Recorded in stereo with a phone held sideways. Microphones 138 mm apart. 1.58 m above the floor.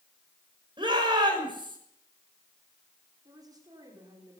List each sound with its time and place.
0.8 s a shout: 35° right (ahead or behind), 6.5 m
3.2 s a woman speaking: 30° right (ahead or behind), 5.5 m